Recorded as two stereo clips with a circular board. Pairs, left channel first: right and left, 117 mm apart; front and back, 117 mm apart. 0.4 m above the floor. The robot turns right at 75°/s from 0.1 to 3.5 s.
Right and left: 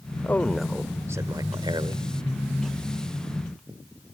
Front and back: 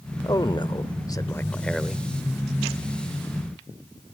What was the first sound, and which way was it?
A man speaking, 30° right.